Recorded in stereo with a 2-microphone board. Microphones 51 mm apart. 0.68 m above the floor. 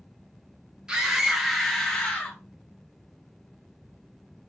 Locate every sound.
0.9 s a scream: 15° right (ahead or behind), 1.3 m; by 2.4 s 25° left (ahead or behind), 1.2 m